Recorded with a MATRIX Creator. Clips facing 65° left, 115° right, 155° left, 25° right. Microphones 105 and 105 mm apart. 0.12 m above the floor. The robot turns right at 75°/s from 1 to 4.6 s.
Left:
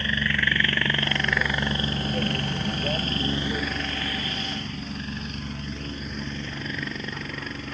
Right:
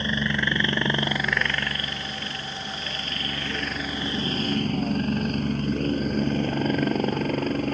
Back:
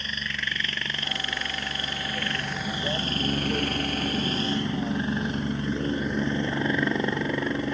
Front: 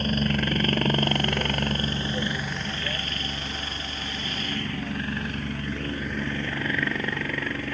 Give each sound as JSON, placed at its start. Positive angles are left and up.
{"t": 0.0, "sound": "a helicopter", "azimuth_deg": -45}